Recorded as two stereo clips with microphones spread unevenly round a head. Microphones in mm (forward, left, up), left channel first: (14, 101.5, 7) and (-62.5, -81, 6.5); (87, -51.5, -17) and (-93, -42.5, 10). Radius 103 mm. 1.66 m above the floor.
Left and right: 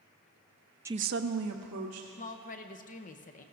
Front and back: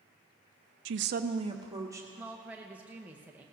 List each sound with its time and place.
0.8 s a woman speaking: 170° left, 0.5 m; by 2.1 s 110° right, 1.8 m
2.2 s a woman speaking: 105° left, 0.7 m